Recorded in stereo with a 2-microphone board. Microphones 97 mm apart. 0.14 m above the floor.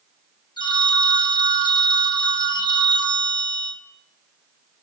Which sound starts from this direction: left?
A phone ringing, at 0.6 s.